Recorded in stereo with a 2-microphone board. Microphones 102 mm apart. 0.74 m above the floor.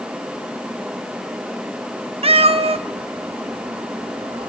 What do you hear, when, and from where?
2.2 s a cat meowing: 75° right (ahead or behind), 0.6 m